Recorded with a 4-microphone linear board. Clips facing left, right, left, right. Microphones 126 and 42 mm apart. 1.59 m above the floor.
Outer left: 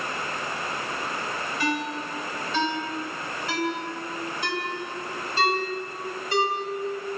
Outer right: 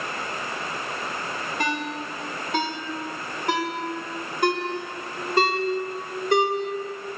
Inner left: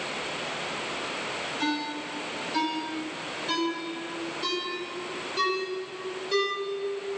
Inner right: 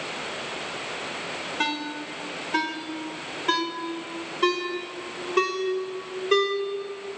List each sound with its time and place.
1.6 s a ringtone: 55° right (ahead or behind), 4.5 m